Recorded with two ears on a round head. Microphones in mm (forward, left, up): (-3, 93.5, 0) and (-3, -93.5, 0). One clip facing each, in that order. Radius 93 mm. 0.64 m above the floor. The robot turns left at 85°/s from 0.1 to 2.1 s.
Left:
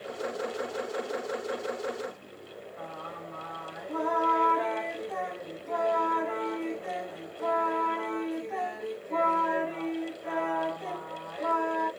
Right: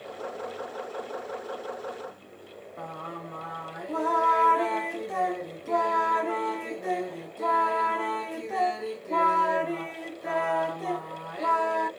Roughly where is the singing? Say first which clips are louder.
Right 4 dB; right.